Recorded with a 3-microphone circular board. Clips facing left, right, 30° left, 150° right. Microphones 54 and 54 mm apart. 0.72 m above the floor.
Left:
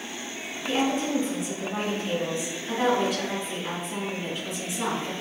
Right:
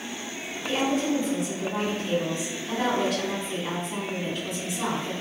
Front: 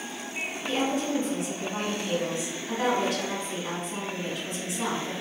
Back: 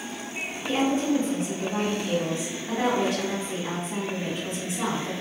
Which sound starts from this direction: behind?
A woman speaking, at 0.7 s.